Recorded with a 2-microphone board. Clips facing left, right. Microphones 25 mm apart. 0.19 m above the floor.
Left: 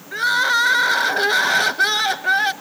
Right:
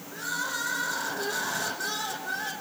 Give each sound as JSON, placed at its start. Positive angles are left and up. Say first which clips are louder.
{"t": 0.1, "sound": "crying", "louder": "left 15 dB", "side_deg": 70, "distance_m": 1.0}